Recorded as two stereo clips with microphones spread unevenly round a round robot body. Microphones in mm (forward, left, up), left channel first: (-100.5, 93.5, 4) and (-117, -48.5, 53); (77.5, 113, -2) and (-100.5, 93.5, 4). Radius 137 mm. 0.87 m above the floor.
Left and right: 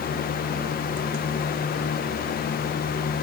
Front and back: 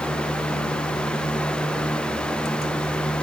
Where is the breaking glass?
No breaking glass in this recording.